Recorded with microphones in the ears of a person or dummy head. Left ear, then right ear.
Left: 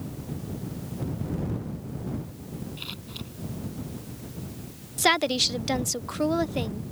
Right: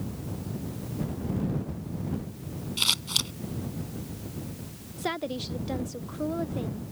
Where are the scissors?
60° right (ahead or behind).